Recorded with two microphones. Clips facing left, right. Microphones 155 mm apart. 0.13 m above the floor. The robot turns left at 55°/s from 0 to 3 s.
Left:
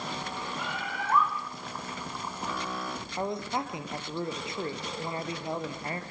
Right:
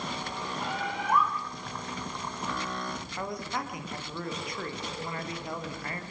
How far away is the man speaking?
About 3 m.